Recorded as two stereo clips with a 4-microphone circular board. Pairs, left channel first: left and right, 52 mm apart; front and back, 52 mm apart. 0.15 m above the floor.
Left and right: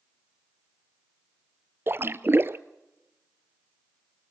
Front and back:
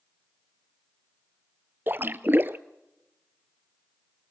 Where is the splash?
135° right, 0.6 m.